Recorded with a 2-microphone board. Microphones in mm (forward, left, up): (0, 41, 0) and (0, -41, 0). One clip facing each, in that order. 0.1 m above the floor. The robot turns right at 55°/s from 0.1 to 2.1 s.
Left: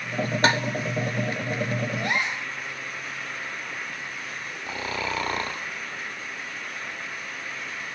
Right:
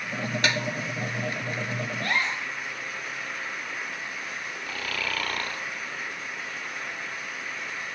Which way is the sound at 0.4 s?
35° left (ahead or behind).